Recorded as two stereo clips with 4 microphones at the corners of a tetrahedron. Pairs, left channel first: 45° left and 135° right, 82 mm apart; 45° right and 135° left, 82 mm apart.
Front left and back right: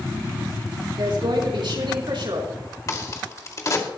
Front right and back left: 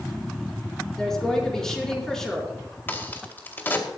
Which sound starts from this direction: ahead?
A crack, at 2.9 s.